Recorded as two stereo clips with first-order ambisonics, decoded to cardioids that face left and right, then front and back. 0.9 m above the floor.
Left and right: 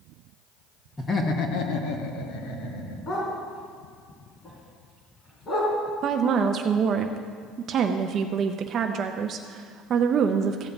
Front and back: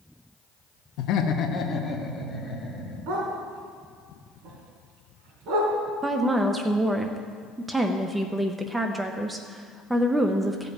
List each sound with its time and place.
1.0 s laughter: 15° left, 1.0 m; by 3.0 s 100° left, 3 m
3.1 s a dog barking: 150° left, 3 m
6.0 s a woman speaking: 105° right, 0.5 m